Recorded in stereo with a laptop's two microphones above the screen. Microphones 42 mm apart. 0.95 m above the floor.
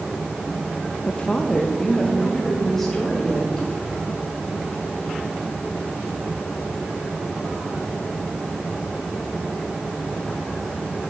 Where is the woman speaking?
30° left (ahead or behind), 0.5 m; by 3.7 s 5° left (ahead or behind), 3.5 m.